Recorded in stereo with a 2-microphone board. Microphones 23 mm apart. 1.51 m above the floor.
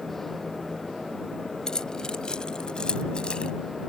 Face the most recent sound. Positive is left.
turn(degrees=40)  # may be behind; listen again after turning